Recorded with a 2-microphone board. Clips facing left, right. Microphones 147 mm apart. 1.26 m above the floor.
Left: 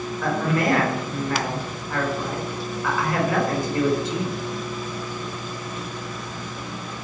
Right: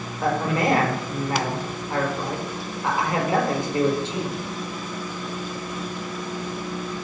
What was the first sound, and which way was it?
A man speaking, 25° right (ahead or behind).